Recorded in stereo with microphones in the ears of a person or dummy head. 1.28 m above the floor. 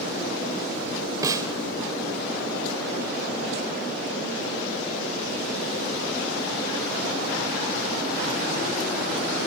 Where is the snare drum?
20° right (ahead or behind), 2.5 m.